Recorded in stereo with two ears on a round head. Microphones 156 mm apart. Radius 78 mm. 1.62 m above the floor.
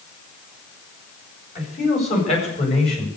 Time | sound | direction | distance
1.6 | a man speaking | 40° left (ahead or behind) | 8.5 m